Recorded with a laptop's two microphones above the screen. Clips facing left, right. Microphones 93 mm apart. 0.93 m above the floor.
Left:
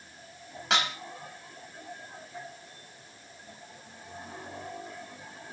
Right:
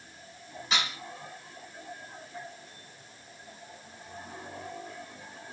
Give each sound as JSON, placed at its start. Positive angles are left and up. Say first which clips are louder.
{"t": 0.7, "sound": "dishes clattering", "louder": "left 4 dB", "side_deg": 75, "distance_m": 4.0}